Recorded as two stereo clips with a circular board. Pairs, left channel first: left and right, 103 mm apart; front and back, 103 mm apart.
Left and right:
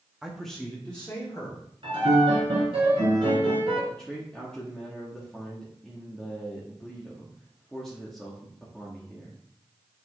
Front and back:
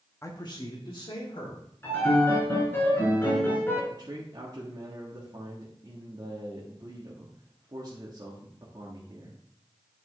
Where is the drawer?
No drawer in this recording.